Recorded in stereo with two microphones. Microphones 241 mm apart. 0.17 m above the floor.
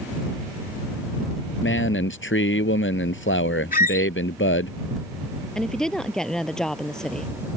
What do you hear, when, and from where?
1.6 s a man speaking: 60° left (ahead or behind)
3.7 s a squeak: 40° left (ahead or behind)
5.5 s a woman speaking: centre (ahead or behind)